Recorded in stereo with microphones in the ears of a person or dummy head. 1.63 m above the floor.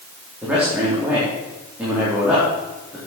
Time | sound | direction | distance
0.4 | a man speaking | 5° right (ahead or behind) | 4.5 m